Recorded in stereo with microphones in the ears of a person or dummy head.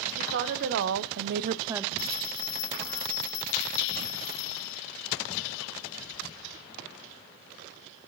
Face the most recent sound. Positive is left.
turn(degrees=80)